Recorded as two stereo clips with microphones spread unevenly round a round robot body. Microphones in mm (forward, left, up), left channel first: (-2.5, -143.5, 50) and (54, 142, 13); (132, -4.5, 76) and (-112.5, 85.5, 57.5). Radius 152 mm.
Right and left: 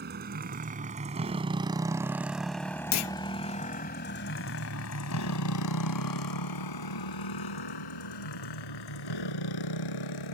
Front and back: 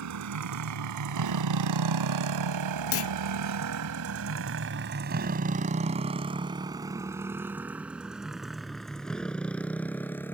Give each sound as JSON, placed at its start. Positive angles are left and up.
{"t": 0.0, "sound": "a motorcycle", "azimuth_deg": 140}
{"t": 2.9, "sound": "a clunk", "azimuth_deg": -65}